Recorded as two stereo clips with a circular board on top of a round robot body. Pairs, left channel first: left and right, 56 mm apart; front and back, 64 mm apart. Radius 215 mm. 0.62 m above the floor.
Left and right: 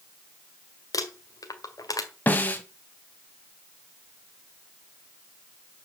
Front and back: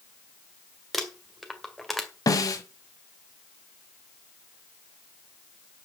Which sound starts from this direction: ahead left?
A snare drum, at 2.3 s.